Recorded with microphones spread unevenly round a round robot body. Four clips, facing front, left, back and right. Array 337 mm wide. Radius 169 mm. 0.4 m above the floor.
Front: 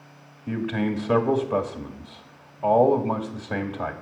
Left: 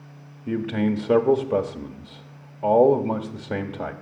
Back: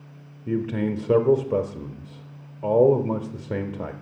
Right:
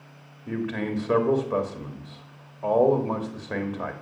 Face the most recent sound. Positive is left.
turn(degrees=150)